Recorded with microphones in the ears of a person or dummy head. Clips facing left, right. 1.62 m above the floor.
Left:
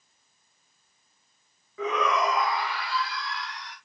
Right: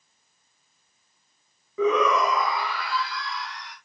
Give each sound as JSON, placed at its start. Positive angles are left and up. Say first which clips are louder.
{"t": 1.8, "sound": "a shout", "louder": "right 5 dB", "side_deg": -80, "distance_m": 1.0}